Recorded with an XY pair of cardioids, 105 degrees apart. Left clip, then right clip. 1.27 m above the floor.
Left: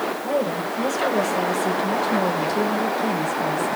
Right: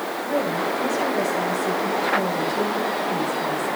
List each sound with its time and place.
0.2 s a woman speaking: 35° left, 6 m